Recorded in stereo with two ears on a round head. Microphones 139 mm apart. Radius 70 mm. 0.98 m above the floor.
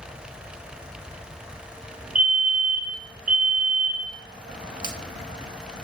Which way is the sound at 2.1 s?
55° right (ahead or behind).